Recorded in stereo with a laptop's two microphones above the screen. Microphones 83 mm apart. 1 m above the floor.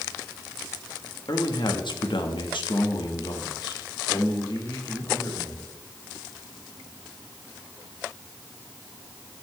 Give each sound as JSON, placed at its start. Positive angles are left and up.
{"t": 1.3, "sound": "a man speaking", "side_deg": 55, "distance_m": 1.9}